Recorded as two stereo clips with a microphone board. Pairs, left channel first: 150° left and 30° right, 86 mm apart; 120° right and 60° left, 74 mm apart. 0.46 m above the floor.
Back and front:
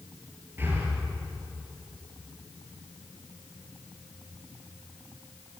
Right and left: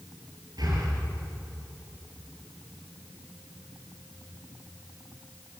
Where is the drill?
No drill in this recording.